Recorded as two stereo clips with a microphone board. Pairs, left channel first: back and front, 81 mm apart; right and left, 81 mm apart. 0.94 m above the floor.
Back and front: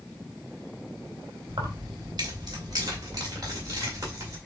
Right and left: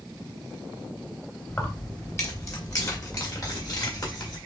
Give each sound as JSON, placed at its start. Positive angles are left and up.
{"t": 1.5, "sound": "keys jangling", "azimuth_deg": -25, "distance_m": 1.5}